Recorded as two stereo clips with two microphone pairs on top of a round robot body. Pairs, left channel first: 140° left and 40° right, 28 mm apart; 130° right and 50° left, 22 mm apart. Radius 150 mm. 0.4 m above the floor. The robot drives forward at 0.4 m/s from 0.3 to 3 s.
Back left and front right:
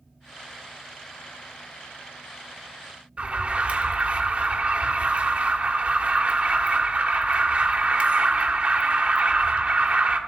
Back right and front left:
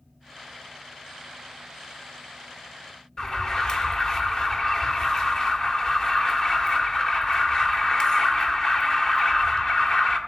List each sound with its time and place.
3.2 s an alarm: 70° right, 1.7 m